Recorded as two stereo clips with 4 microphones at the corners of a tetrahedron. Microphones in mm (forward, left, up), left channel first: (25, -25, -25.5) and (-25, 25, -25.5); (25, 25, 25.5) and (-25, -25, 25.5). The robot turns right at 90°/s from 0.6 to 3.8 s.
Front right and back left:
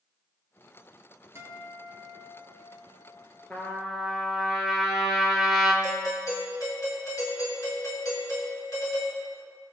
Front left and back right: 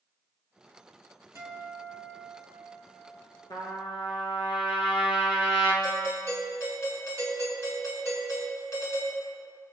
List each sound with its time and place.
1.4 s a guitar: straight behind, 2.5 m; by 3.4 s 5° left, 2.5 m
3.5 s a trumpet: 20° left, 3 m; by 5.7 s 50° left, 3 m
5.8 s a doorbell: straight ahead, 5.5 m